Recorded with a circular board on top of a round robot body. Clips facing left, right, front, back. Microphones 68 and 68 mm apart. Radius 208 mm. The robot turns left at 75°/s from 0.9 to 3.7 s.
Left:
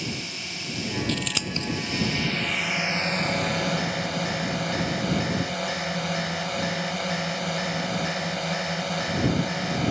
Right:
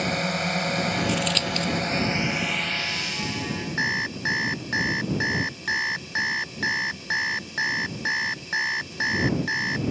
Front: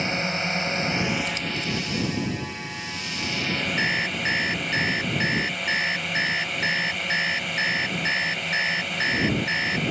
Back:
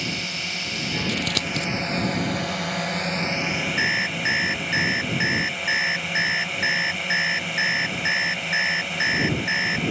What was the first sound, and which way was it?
A drone, 60° right.